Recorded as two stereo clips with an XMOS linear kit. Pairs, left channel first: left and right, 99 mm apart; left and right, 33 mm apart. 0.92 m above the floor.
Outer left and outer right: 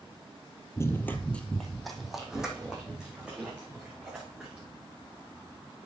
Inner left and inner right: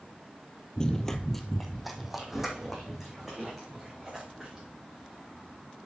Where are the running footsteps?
30° left (ahead or behind), 1.0 m; by 4.7 s 15° right (ahead or behind), 4.5 m.